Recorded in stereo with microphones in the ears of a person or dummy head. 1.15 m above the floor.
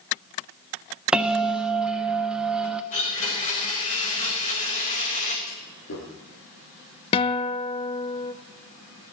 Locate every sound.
1.1 s a bell: 5° right (ahead or behind), 0.9 m
2.9 s a blender: 35° left (ahead or behind), 4.5 m
5.5 s a clunk: 75° left (ahead or behind), 5.5 m
7.1 s a guitar: 30° left (ahead or behind), 0.6 m